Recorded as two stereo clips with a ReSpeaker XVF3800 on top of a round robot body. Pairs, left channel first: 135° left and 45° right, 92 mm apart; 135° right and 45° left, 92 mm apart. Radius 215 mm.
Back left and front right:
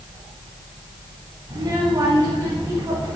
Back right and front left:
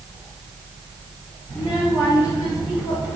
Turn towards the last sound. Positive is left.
turn(degrees=-120)